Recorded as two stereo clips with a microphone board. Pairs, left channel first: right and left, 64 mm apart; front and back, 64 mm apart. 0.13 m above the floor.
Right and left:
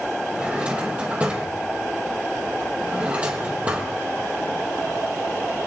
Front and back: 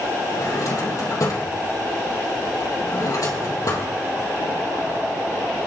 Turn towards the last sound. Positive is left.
turn(degrees=25)